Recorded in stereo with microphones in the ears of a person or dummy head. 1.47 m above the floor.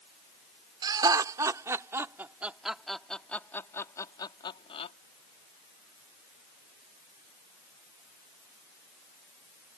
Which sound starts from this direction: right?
Laughter, at 0.8 s.